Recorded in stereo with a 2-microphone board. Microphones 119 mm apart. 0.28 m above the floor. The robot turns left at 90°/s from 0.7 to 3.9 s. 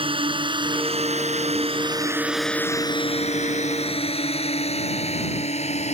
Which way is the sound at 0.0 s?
50° right (ahead or behind).